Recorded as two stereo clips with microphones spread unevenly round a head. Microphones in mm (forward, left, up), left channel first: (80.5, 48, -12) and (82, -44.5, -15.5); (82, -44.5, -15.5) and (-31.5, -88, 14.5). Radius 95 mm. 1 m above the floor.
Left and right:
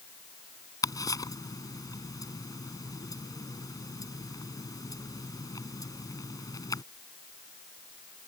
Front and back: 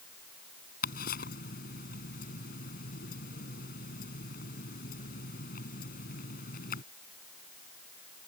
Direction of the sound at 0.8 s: 40° left.